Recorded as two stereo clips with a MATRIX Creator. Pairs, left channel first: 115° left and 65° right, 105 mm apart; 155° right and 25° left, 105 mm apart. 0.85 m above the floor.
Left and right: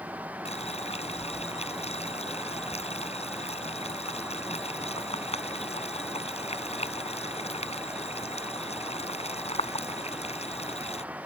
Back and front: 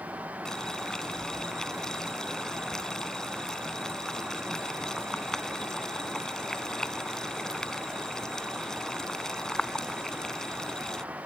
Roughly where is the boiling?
Behind left.